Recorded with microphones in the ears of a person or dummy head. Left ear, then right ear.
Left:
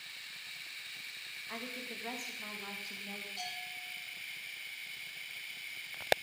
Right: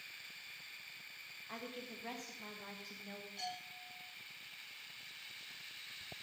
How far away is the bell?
About 9 m.